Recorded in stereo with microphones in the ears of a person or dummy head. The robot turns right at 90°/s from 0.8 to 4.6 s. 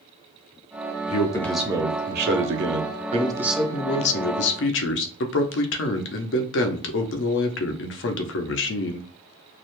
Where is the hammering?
I don't hear hammering.